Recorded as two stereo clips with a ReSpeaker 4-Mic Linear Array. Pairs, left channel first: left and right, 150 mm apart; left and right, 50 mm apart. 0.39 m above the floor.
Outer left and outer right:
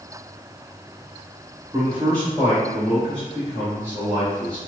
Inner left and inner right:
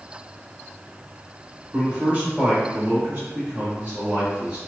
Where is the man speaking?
15° right (ahead or behind), 1.9 m; by 4.6 s 30° right (ahead or behind), 1.0 m.